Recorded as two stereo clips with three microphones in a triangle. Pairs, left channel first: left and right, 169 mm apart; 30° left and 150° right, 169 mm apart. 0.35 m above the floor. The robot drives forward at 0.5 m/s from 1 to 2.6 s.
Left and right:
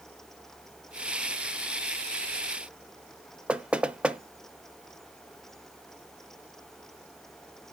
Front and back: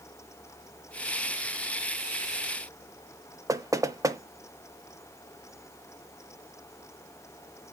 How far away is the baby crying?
No baby crying in this recording.